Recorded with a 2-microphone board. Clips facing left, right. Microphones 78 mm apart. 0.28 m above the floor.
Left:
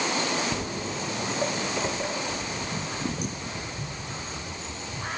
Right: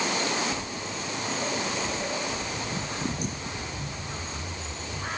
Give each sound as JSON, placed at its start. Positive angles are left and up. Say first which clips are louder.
{"t": 0.5, "sound": "footsteps", "louder": "left 3 dB", "side_deg": 60, "distance_m": 0.7}